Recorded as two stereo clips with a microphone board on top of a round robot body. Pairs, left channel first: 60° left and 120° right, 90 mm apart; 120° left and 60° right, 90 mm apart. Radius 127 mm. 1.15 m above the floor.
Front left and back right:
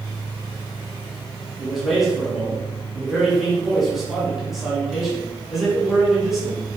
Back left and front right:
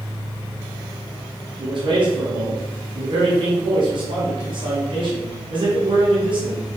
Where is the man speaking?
30° right, 3 m.